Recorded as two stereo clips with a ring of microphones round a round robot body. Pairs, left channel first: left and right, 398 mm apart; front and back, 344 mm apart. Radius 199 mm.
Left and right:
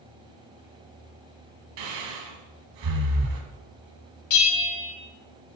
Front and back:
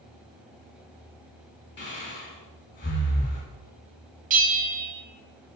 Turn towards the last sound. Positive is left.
turn(degrees=125)